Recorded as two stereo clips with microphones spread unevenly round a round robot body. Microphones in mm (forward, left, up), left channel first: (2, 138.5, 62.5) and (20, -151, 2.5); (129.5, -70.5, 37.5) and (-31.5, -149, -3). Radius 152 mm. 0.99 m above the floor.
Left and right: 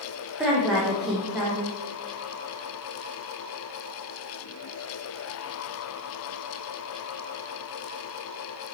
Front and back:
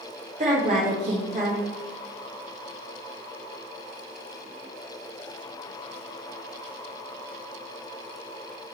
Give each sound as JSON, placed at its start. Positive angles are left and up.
{"t": 0.4, "sound": "a woman speaking", "azimuth_deg": -165, "distance_m": 1.2}